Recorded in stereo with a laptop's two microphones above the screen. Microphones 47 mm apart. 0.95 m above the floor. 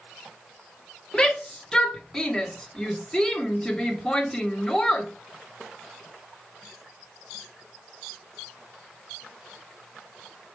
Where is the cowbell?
No cowbell in this recording.